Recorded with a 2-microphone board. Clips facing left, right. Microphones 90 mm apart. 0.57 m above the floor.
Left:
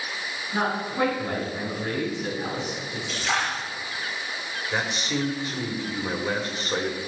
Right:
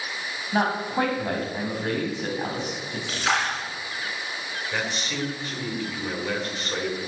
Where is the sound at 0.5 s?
55° right (ahead or behind), 3.5 m.